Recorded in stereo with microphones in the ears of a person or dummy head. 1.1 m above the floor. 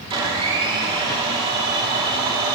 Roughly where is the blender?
Right.